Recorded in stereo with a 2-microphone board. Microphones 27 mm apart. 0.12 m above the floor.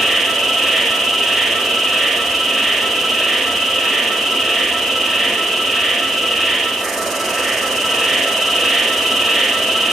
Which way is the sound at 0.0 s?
5° left (ahead or behind).